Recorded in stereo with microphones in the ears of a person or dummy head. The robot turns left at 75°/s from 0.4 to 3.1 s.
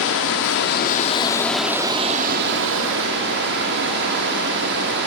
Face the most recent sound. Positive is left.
turn(degrees=-110)